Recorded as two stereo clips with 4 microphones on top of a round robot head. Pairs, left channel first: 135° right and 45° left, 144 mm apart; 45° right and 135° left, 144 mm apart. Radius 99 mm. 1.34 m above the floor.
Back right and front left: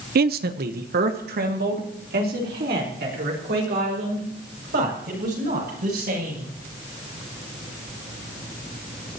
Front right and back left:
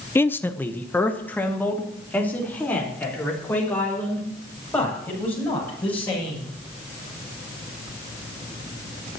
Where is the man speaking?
30° left, 0.6 m; by 6.5 s 35° left, 10.5 m.